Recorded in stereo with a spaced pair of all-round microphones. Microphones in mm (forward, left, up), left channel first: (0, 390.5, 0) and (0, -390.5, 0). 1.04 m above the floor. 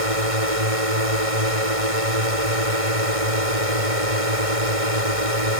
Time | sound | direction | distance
0.0 | a drone | 45° right (ahead or behind) | ?